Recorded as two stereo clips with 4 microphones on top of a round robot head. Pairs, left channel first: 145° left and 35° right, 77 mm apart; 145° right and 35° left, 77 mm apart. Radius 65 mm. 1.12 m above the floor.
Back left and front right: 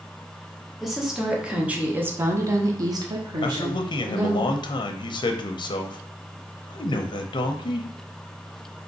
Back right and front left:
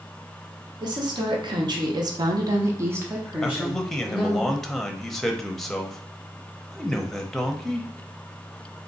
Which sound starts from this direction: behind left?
A man speaking, at 3.4 s.